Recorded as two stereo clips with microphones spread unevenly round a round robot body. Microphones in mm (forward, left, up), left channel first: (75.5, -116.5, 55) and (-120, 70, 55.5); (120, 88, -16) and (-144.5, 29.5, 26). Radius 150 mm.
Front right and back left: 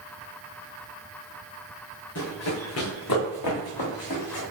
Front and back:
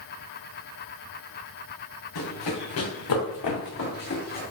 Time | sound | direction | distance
2.1 | running footsteps | 5° left | 2.5 m